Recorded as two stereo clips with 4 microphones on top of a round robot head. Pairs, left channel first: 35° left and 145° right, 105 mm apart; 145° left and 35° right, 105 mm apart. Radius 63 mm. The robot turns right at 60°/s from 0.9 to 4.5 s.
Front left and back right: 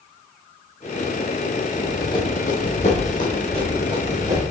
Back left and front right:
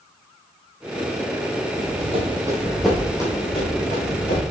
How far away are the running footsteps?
About 1.4 m.